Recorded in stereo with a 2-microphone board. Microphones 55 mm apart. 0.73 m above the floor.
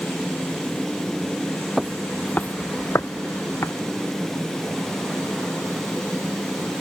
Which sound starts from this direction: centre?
Footsteps, at 1.8 s.